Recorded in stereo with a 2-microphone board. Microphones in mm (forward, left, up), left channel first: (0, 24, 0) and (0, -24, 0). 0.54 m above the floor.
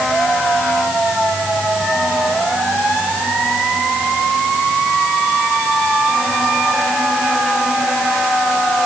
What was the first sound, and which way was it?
Only background noise.